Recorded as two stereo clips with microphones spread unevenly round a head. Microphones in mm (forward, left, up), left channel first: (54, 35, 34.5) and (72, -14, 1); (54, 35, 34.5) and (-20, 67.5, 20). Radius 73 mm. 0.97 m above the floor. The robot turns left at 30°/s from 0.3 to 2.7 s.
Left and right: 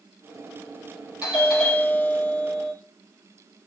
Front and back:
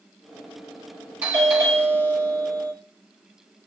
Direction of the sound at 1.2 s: 140° right.